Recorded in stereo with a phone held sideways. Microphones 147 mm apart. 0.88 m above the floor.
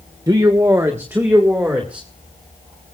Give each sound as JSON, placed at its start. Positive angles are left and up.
{"t": 0.3, "sound": "a man speaking", "side_deg": -25, "distance_m": 1.0}